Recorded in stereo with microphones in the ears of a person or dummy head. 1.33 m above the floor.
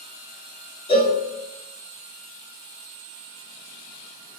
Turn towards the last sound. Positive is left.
turn(degrees=30)  # may be behind; listen again after turning